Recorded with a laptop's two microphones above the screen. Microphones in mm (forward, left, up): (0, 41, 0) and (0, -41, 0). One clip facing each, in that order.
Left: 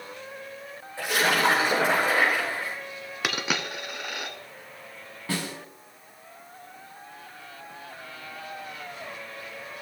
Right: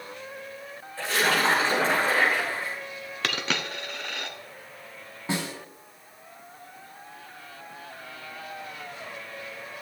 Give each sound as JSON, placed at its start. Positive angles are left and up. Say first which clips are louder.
{"t": 1.0, "sound": "a splash", "louder": "left 1 dB", "side_deg": 15, "distance_m": 4.5}
{"t": 3.2, "sound": "a dropped coin", "louder": "left 1 dB", "side_deg": 10, "distance_m": 1.0}
{"t": 5.3, "sound": "a snare drum", "louder": "right 1 dB", "side_deg": -20, "distance_m": 1.6}